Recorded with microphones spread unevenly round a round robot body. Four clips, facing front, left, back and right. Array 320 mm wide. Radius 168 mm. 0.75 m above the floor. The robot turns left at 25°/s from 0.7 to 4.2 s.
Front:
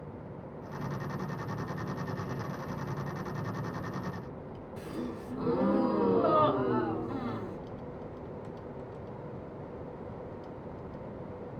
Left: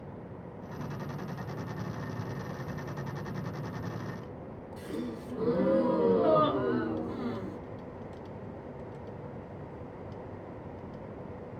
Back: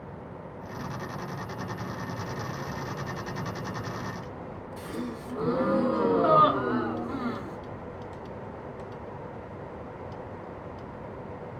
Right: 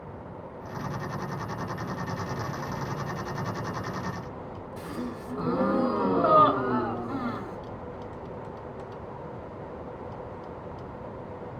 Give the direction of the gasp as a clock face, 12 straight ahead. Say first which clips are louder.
Right 1 dB, back 2 dB; 4 o'clock.